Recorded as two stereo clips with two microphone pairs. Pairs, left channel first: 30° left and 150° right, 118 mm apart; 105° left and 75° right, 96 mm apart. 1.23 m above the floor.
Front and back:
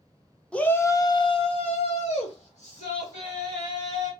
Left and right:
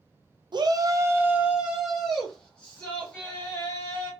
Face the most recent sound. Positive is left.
turn(degrees=35)